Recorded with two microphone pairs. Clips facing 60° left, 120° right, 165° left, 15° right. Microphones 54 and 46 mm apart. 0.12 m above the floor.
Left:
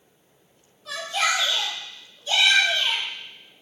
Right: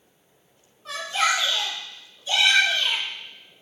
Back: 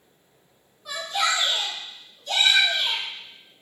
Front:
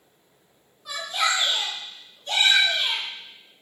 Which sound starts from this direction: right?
A shout, at 0.8 s.